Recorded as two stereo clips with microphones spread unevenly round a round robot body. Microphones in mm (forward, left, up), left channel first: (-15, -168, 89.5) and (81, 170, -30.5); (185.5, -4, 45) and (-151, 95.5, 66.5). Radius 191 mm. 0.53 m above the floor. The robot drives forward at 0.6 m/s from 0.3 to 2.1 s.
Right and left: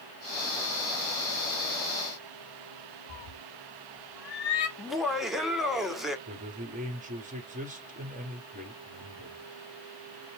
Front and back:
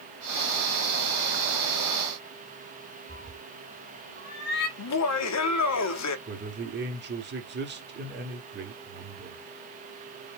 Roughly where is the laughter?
Ahead.